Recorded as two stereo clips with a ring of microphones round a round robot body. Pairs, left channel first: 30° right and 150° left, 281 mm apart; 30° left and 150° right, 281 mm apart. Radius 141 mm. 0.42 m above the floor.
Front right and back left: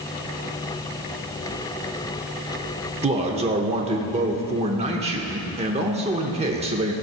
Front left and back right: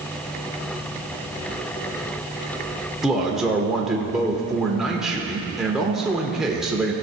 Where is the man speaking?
125° left, 0.8 m.